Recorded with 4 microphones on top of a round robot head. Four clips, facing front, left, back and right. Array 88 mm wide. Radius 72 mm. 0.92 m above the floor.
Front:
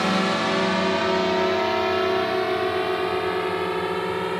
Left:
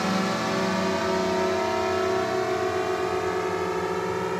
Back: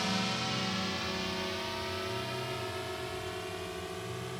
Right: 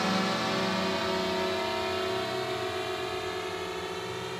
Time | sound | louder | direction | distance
0.0 | a drone | left 3 dB, front 12 dB | 10° left | ?